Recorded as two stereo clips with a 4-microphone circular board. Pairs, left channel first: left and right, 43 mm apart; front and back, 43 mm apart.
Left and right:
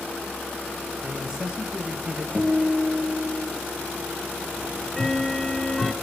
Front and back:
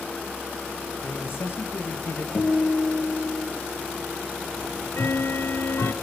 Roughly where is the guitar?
Ahead.